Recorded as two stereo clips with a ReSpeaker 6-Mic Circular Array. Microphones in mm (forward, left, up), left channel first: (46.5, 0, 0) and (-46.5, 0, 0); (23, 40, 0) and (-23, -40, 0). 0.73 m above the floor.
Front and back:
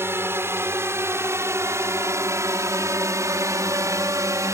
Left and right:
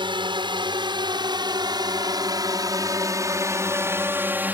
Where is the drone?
120° right; by 4.5 s 175° right.